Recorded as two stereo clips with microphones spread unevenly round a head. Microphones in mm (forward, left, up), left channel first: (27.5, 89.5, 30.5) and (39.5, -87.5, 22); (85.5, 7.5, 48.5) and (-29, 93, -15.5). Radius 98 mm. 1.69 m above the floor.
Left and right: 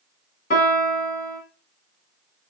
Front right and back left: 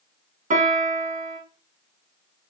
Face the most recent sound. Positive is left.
turn(degrees=95)